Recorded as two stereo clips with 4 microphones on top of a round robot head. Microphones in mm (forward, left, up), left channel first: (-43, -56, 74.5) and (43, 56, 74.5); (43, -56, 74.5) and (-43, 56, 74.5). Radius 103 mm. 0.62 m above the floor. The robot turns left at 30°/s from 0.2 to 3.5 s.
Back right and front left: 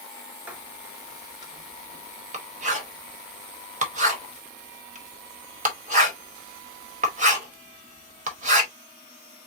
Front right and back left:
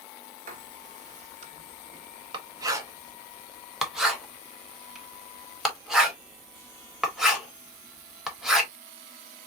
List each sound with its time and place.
0.5 s writing: 130° left, 1.8 m; by 8.7 s 40° left, 1.8 m